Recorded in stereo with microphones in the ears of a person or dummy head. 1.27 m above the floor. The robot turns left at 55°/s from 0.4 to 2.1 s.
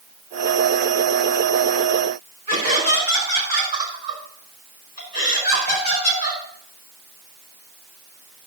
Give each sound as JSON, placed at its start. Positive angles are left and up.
{"t": 2.5, "sound": "laughter", "side_deg": -45, "distance_m": 4.5}